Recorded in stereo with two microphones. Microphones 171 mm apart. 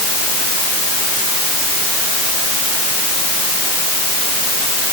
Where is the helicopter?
No helicopter in this recording.